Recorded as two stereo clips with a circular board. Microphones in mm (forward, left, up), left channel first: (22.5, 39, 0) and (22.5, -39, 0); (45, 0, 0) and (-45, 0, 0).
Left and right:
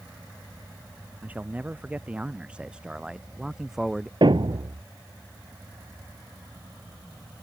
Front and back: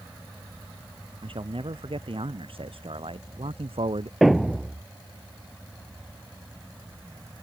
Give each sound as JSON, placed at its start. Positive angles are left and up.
{"t": 1.2, "sound": "a man speaking", "azimuth_deg": -160}
{"t": 4.2, "sound": "a thud", "azimuth_deg": -95}